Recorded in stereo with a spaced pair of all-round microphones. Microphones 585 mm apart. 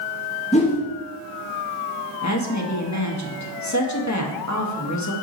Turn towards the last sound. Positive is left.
turn(degrees=30)  # may be behind; listen again after turning